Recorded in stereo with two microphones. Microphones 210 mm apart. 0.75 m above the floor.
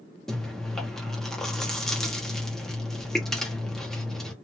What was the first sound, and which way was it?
Chewing, centre (ahead or behind).